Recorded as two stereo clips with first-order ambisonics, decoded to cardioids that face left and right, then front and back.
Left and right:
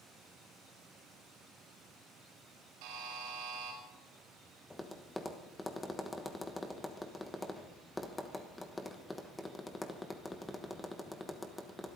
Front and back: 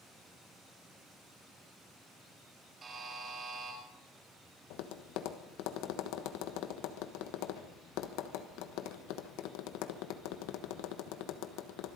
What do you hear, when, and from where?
2.8 s a buzzer: 110° right, 5 m
4.7 s tapping: 5° left, 1.1 m